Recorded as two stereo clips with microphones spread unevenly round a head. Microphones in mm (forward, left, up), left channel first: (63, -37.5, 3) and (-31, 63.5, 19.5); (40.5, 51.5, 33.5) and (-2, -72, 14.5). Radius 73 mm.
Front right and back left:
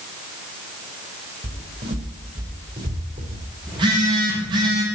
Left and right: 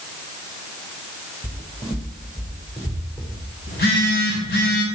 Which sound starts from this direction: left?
A phone buzzing, at 3.7 s.